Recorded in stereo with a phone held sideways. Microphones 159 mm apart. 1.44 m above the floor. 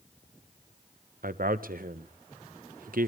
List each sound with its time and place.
1.2 s a man speaking: 65° right (ahead or behind), 0.8 m